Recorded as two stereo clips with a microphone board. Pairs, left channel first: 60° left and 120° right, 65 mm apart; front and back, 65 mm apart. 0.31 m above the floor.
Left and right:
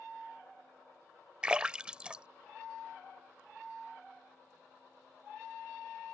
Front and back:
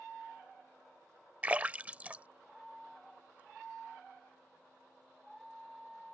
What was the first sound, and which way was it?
A splash, 170° right.